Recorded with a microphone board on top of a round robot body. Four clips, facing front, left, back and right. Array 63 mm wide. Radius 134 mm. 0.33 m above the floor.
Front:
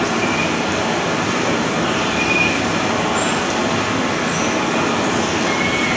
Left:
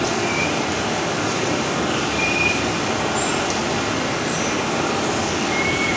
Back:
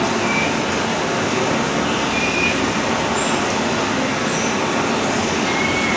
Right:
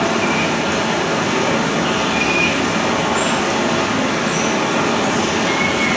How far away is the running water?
About 6.5 m.